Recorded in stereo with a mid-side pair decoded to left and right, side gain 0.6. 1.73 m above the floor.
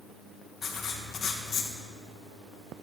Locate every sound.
0.6 s writing: 35° left, 1.7 m